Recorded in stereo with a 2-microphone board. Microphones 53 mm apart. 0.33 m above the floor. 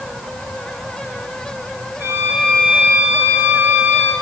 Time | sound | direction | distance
2.0 | a violin | 55° right (ahead or behind) | 4.5 m